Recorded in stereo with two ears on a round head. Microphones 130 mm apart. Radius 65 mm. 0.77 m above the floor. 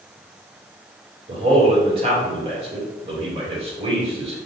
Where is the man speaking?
40° right (ahead or behind), 1.9 m.